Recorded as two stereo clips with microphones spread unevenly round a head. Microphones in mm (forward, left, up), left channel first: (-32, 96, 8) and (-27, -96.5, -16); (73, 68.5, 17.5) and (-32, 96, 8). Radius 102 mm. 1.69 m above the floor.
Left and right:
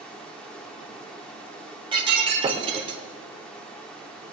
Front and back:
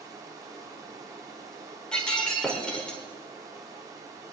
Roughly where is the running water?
Behind left.